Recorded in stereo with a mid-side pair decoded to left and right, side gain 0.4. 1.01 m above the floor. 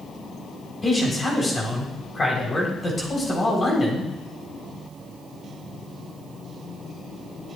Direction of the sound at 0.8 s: 35° left.